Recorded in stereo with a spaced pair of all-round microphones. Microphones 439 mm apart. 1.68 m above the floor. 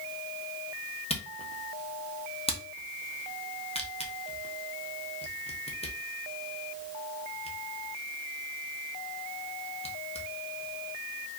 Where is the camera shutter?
15° left (ahead or behind), 0.8 m.